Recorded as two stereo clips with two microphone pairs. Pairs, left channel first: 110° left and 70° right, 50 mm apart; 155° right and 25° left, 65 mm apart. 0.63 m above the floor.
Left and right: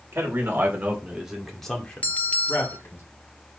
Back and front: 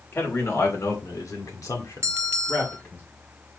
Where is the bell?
60° left, 0.9 m.